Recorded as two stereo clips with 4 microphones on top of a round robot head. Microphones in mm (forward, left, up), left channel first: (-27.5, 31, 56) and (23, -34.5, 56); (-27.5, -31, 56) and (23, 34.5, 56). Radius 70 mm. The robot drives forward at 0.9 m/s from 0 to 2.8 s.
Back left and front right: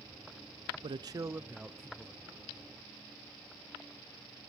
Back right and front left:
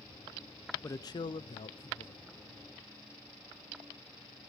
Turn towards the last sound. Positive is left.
turn(degrees=-160)